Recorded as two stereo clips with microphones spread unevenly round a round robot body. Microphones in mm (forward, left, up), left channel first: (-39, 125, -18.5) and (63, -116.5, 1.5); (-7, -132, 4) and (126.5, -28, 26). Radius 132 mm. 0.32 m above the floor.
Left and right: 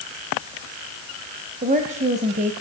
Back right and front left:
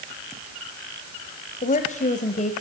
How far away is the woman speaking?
About 1.4 m.